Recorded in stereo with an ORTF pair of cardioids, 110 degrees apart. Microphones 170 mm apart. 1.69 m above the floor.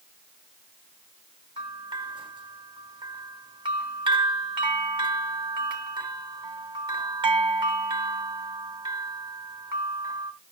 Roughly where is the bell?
Ahead right.